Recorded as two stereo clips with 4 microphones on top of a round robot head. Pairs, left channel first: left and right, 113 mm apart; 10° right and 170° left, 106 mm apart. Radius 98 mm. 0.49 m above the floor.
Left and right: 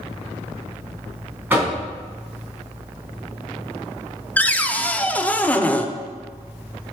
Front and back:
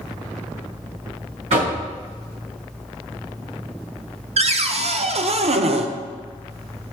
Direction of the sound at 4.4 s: 165° left.